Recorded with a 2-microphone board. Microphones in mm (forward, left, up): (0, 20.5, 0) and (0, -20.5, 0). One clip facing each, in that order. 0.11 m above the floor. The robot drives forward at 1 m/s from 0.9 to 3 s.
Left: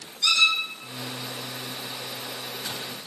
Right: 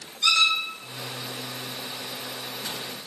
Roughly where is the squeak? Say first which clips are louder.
Even; right.